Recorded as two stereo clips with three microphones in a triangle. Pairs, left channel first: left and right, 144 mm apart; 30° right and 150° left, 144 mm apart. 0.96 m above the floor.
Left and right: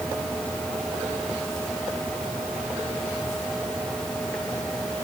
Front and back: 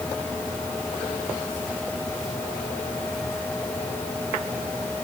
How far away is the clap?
No clap in this recording.